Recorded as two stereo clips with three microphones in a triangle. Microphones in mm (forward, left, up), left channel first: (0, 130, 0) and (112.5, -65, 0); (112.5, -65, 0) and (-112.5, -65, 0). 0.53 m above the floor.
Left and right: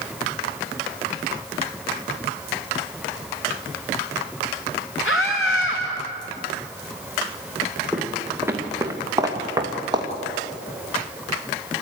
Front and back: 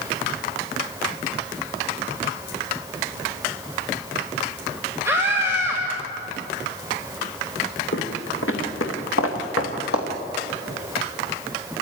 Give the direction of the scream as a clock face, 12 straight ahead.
9 o'clock.